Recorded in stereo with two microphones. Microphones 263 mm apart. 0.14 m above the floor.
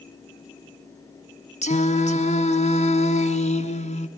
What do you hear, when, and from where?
1.6 s singing: 25° left (ahead or behind), 1.2 m